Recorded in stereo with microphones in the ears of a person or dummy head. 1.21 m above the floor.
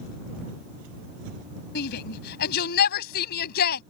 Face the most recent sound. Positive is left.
turn(degrees=60)  # may be behind; listen again after turning